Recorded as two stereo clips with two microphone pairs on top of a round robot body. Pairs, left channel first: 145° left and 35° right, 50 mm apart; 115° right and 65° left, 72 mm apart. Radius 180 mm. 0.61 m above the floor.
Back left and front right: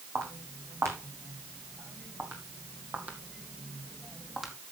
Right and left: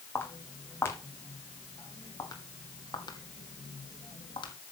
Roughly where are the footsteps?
Ahead right.